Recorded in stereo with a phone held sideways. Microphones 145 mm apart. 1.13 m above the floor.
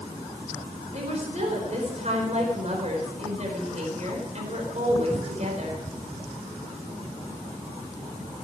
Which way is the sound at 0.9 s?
50° right (ahead or behind).